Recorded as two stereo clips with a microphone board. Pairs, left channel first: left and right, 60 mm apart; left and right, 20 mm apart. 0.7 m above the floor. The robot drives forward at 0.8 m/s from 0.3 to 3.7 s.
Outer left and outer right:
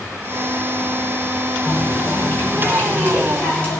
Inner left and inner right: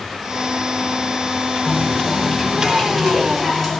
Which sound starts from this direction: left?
A running tap, at 1.7 s.